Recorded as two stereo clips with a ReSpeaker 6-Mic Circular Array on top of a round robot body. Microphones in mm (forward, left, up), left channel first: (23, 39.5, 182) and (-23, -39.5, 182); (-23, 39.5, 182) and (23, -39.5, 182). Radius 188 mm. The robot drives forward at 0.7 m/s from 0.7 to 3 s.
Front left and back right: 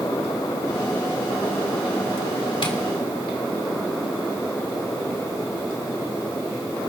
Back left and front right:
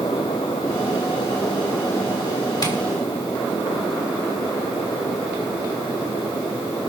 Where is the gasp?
No gasp in this recording.